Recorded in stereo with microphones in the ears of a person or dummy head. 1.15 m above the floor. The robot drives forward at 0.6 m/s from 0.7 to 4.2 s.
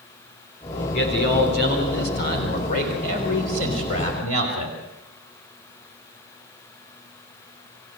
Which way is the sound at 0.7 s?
65° left (ahead or behind).